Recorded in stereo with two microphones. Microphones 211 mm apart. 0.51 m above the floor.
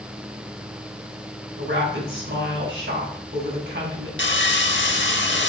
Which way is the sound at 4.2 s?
60° left (ahead or behind).